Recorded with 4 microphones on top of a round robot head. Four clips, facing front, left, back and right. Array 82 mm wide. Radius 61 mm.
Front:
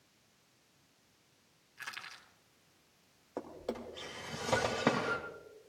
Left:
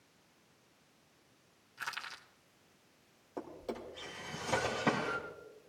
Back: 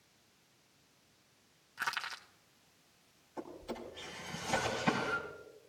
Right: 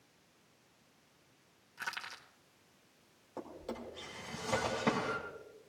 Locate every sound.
1.8 s crushing: 165° right, 1.1 m
3.4 s a drawer: 15° left, 3 m